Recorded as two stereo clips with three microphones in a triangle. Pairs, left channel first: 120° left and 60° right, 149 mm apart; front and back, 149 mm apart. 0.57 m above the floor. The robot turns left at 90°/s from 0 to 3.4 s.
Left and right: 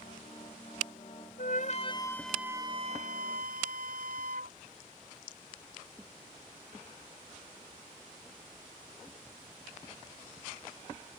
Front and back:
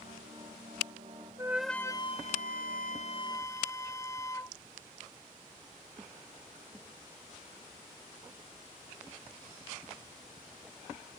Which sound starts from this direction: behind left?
A flute, at 1.4 s.